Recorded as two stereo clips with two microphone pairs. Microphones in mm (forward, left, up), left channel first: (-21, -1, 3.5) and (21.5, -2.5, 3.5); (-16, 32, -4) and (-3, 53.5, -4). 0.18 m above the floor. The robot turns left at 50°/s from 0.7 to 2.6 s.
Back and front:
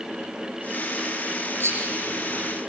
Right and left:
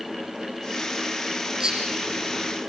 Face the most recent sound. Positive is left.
turn(degrees=-45)